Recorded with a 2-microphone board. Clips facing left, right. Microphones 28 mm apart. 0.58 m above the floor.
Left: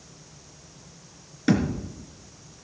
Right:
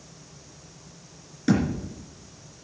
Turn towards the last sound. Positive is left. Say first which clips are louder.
# even
turn(degrees=20)  # may be behind; listen again after turning